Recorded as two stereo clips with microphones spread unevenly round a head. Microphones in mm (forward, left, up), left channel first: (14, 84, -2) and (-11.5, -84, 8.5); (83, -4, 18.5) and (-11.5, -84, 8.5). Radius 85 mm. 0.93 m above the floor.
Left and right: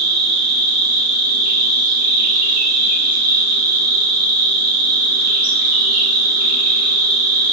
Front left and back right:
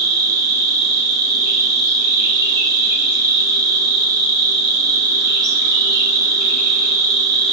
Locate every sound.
0.0 s an insect: 100° right, 1.3 m